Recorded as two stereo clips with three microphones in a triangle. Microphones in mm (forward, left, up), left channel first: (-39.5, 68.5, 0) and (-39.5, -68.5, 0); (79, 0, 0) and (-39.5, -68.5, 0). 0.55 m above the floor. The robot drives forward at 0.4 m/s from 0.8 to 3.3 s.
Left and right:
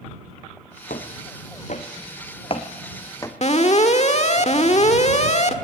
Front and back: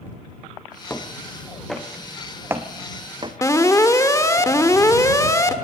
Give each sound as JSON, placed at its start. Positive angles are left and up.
{"t": 0.9, "sound": "footsteps", "azimuth_deg": 105, "distance_m": 2.0}
{"t": 3.4, "sound": "an alarm", "azimuth_deg": 90, "distance_m": 1.4}